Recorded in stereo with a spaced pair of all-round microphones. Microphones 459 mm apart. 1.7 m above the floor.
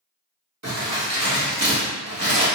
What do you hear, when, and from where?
0.6 s crumpling: 35° right (ahead or behind), 1.2 m